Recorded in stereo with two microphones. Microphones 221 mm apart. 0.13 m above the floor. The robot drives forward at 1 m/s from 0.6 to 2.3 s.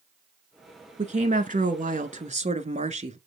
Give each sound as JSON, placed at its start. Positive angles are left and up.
{"t": 1.0, "sound": "a woman speaking", "side_deg": -30, "distance_m": 1.4}